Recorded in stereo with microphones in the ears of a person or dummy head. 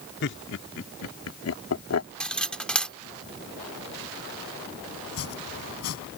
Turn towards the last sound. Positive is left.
turn(degrees=85)